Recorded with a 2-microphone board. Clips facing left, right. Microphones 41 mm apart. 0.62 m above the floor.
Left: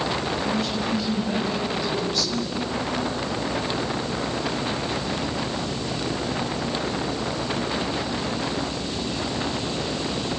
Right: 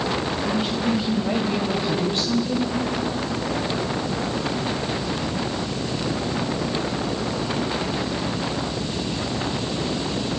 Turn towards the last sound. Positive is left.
turn(degrees=-35)  # may be behind; listen again after turning